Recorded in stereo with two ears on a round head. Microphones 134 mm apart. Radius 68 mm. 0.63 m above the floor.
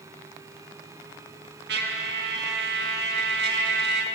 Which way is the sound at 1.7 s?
80° right.